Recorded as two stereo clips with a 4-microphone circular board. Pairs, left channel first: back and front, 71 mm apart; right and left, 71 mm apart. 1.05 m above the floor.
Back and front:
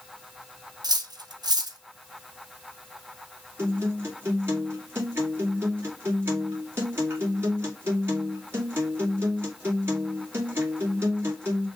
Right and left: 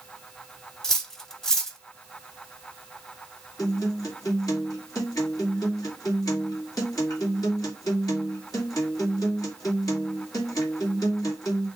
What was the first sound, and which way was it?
Cutlery clinking, 5° right.